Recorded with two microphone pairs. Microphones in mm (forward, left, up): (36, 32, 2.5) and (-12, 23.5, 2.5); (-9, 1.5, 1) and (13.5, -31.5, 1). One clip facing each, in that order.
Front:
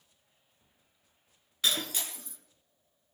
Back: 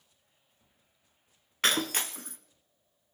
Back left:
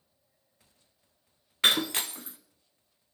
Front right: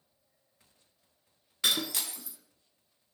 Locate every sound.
1.6 s breaking glass: 165° left, 1.3 m